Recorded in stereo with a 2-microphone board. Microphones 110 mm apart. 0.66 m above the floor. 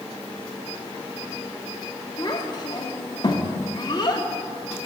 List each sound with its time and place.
2.2 s a child speaking: 40° left (ahead or behind), 0.9 m